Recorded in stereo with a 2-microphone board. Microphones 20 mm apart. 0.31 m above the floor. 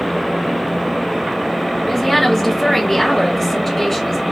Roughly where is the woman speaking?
Centre.